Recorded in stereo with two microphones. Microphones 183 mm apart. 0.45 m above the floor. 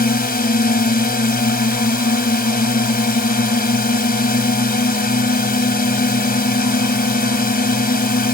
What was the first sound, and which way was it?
A drone, 55° left (ahead or behind).